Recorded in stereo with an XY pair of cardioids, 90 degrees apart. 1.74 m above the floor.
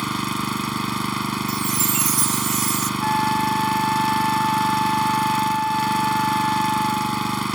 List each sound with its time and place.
0.0 s an engine running: 15° right
1.5 s a chime: 70° right
3.0 s a flute: straight ahead